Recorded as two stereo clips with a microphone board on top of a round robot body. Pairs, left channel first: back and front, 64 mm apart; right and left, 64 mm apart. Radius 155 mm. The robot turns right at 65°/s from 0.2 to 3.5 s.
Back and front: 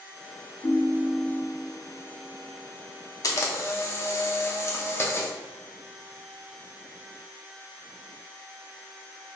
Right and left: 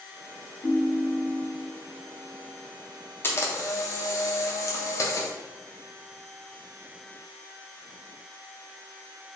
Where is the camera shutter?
145° right, 0.6 m; by 5.3 s 130° right, 0.6 m.